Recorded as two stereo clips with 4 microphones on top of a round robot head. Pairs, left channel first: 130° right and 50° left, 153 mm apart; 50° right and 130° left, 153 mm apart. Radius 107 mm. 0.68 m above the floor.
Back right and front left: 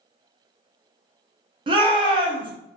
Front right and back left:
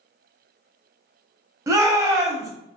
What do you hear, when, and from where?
1.7 s a shout: 75° left, 1.0 m